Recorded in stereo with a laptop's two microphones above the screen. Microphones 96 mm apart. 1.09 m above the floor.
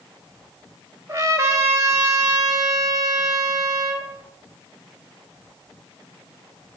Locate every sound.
1.1 s a trumpet: 30° right (ahead or behind), 1.2 m